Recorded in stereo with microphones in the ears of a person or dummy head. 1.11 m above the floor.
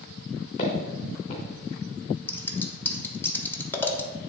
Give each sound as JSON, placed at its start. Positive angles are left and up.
{"t": 0.6, "sound": "footsteps", "side_deg": 40, "distance_m": 3.0}
{"t": 2.3, "sound": "scissors", "side_deg": 15, "distance_m": 0.7}